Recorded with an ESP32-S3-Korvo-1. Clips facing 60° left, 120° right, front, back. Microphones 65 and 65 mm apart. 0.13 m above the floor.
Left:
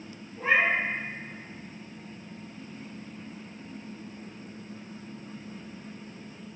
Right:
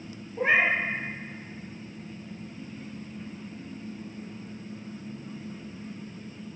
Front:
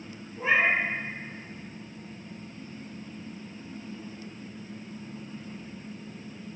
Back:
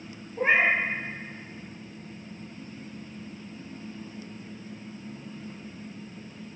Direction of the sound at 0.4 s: 145° right.